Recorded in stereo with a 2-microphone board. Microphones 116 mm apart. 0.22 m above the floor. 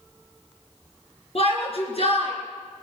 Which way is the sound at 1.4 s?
60° left (ahead or behind).